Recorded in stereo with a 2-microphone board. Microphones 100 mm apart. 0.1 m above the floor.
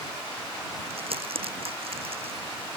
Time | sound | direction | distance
0.9 | crumpling | 75° right (ahead or behind) | ?